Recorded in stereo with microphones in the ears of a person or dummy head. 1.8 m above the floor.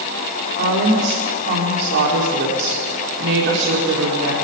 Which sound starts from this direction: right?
A woman speaking, at 0.6 s.